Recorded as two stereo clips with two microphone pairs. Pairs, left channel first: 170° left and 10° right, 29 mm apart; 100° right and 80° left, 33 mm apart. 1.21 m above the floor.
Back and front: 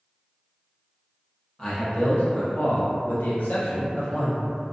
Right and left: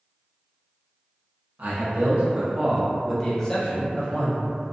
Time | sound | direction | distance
1.6 | a man speaking | 115° left | 0.8 m